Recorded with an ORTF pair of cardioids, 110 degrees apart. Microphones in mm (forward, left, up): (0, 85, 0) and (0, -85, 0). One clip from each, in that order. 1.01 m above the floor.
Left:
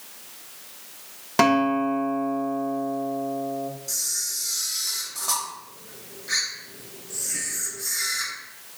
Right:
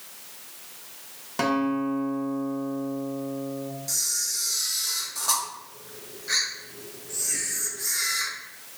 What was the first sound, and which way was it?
A guitar, 40° left.